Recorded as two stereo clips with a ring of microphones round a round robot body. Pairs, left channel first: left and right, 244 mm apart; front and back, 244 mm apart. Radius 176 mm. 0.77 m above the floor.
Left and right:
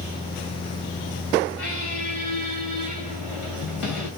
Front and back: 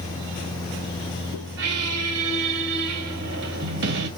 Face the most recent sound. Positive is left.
turn(degrees=175)